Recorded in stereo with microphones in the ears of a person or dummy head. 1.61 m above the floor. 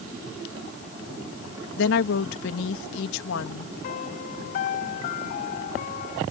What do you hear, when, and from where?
1.8 s a woman speaking: 80° left
3.8 s a piano: 55° left (ahead or behind)